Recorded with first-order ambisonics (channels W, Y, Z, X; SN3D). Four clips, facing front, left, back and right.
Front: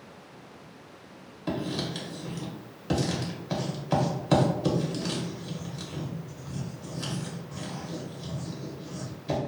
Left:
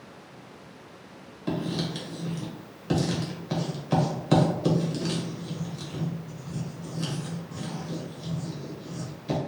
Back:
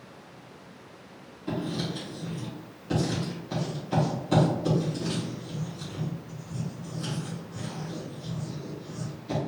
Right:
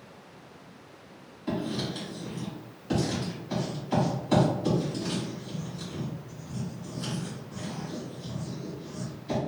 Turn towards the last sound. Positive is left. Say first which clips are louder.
# left 1 dB, even
turn(degrees=40)